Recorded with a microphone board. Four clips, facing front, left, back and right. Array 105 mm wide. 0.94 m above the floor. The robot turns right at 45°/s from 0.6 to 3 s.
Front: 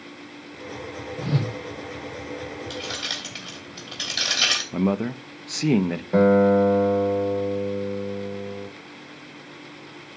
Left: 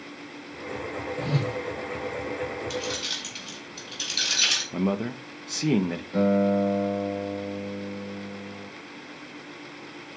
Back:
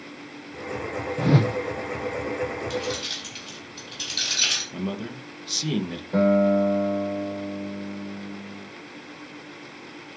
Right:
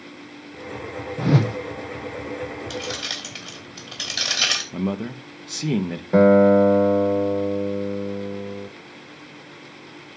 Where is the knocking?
I don't hear knocking.